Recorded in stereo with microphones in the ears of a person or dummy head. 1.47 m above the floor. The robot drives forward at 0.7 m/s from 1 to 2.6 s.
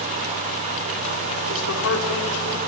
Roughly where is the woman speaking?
Left.